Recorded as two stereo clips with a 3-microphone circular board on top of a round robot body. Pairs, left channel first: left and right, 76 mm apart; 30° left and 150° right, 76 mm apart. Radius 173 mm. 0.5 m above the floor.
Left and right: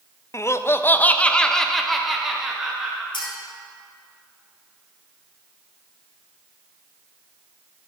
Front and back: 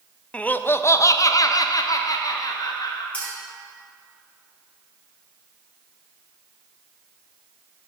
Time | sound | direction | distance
0.3 | laughter | 95° left | 0.8 m
3.1 | a clink | 105° left | 3 m